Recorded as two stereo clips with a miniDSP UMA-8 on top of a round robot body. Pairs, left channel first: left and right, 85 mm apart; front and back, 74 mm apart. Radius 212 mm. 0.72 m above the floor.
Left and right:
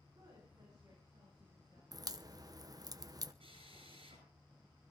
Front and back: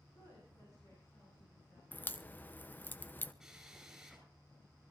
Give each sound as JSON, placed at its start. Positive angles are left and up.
{"t": 0.1, "sound": "a woman speaking", "azimuth_deg": -45, "distance_m": 7.0}
{"t": 1.9, "sound": "a crack", "azimuth_deg": -60, "distance_m": 1.1}
{"t": 3.4, "sound": "a drill", "azimuth_deg": -95, "distance_m": 9.0}